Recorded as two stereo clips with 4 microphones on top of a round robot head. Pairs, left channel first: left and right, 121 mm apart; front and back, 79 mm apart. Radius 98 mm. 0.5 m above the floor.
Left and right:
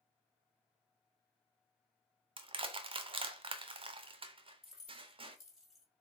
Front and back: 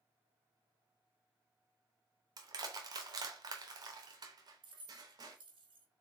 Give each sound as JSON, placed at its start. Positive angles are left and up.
{"t": 2.4, "sound": "crushing", "azimuth_deg": -135, "distance_m": 0.6}
{"t": 4.6, "sound": "keys jangling", "azimuth_deg": -175, "distance_m": 1.8}